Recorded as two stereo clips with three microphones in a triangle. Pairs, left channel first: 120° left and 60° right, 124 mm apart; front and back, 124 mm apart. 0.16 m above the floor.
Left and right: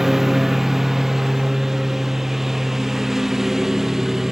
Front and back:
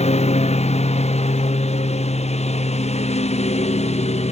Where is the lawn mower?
30° left.